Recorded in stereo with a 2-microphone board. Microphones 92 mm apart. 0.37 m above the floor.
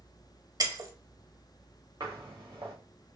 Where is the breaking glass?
45° right (ahead or behind), 0.8 m.